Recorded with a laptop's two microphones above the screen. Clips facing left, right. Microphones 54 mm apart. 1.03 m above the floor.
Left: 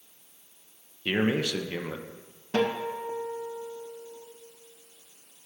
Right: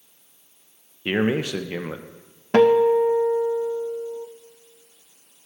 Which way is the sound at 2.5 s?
65° right (ahead or behind).